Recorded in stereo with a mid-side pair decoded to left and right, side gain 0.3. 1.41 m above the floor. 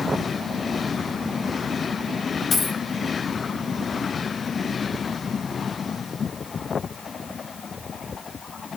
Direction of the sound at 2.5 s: 65° left.